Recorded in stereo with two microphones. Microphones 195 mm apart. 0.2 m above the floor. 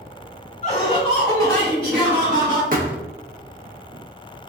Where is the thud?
45° right (ahead or behind), 0.6 m.